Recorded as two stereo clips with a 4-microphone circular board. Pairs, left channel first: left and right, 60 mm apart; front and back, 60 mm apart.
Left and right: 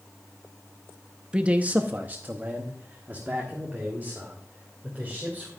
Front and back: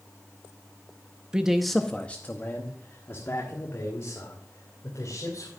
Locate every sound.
1.3 s a man speaking: 135° right, 0.7 m; by 5.5 s 30° right, 3 m